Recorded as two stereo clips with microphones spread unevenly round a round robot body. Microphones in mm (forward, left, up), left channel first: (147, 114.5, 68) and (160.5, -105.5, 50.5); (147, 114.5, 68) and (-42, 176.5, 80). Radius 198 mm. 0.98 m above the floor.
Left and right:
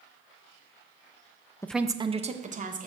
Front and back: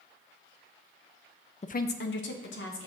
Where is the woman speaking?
15° left, 0.5 m; by 2.9 s 35° right, 1.7 m.